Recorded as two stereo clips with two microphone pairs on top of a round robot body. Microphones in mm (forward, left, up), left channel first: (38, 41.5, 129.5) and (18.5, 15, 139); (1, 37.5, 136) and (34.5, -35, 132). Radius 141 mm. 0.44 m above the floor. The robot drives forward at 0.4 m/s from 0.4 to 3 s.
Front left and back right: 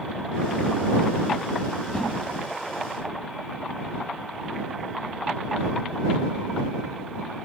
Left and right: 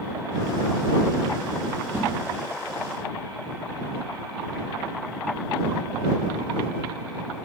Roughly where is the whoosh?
Ahead.